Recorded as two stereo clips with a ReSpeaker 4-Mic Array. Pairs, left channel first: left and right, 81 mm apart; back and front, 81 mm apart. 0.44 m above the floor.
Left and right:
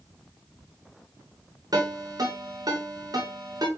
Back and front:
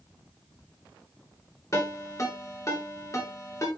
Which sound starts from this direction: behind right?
A ringtone, at 1.7 s.